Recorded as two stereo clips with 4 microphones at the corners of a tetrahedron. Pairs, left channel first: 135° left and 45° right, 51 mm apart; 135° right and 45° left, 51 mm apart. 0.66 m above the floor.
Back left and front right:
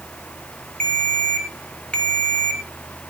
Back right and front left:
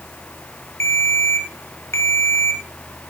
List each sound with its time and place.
0.8 s a ringtone: 160° right, 3 m